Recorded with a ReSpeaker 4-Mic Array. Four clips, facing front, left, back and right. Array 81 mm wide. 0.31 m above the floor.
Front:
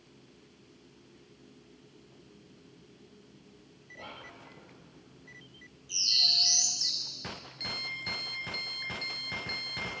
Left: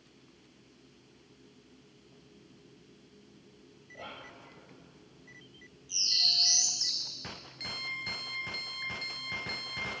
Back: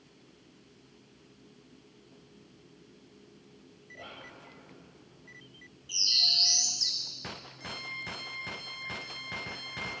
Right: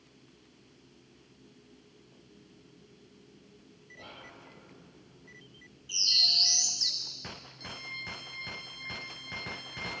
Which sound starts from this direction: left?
Whispering, at 3.9 s.